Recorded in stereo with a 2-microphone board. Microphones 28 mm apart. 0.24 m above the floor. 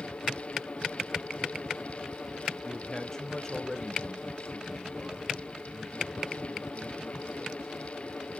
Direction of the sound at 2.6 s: 20° left (ahead or behind).